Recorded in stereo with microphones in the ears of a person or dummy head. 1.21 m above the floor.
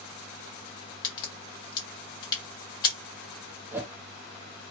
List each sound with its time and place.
1.0 s a crack: 20° left (ahead or behind), 1.6 m
3.7 s a whoosh: 15° right (ahead or behind), 0.9 m